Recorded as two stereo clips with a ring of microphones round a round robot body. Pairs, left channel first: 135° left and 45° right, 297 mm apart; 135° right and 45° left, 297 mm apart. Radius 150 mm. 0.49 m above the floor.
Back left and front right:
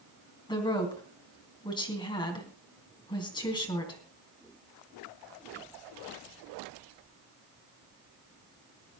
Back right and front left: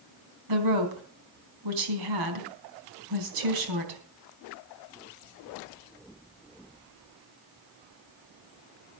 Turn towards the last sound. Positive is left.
turn(degrees=60)